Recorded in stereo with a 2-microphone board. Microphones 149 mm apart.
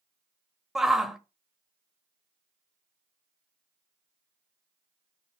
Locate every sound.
0.8 s a shout: 5° right (ahead or behind), 0.9 m